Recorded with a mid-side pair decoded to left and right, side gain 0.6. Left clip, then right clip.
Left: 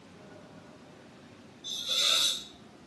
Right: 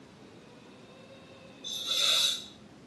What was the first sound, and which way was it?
A hiss, straight ahead.